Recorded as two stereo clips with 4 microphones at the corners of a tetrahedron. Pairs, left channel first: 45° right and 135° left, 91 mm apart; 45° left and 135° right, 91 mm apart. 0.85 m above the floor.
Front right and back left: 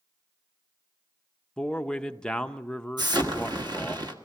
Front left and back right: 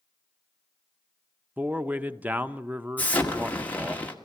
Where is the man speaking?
105° right, 0.6 m.